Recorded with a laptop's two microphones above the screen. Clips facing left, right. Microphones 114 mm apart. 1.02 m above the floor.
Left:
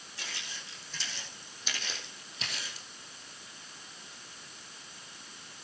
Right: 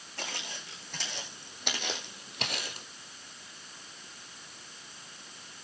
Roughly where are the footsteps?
Right.